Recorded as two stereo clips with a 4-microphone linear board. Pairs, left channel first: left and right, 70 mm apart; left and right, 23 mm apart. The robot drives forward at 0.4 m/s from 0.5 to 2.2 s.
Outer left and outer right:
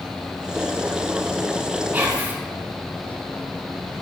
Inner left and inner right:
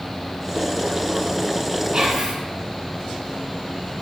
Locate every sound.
1.9 s whispering: 25° right (ahead or behind), 0.6 m